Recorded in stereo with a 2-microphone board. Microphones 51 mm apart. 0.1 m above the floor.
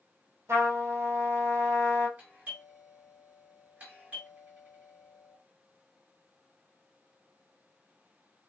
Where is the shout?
I don't hear a shout.